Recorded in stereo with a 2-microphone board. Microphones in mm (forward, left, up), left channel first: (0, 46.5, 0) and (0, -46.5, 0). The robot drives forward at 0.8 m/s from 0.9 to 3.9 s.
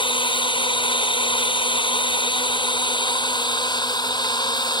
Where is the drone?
65° left (ahead or behind); by 4.8 s 50° left (ahead or behind).